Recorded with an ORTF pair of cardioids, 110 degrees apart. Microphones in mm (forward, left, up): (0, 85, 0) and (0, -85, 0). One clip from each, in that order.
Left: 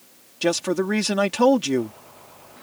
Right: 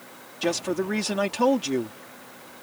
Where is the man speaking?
30° left.